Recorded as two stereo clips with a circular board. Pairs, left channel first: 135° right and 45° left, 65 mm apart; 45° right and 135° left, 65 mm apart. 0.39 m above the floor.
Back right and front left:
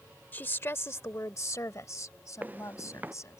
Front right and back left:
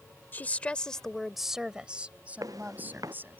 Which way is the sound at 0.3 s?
90° right.